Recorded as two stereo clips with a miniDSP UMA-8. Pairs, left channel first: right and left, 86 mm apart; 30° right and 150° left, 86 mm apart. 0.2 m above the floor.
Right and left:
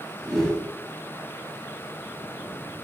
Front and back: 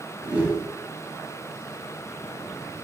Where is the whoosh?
170° right, 1.1 m.